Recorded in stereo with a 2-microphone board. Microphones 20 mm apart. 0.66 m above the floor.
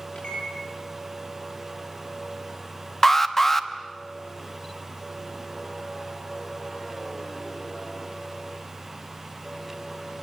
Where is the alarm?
15° left (ahead or behind), 1.0 m.